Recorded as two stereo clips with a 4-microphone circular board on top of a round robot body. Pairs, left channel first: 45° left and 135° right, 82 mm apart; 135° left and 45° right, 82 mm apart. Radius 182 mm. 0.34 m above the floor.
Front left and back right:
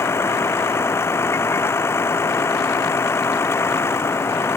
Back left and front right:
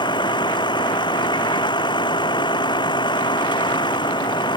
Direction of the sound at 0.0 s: 105° left.